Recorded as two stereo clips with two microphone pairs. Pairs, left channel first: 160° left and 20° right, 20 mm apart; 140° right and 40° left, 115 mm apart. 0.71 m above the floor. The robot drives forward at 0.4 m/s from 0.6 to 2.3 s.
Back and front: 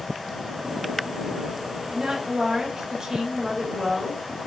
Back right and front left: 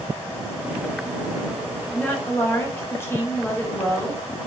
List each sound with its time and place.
1.9 s a woman speaking: 65° right, 1.1 m; by 4.2 s 75° right, 1.0 m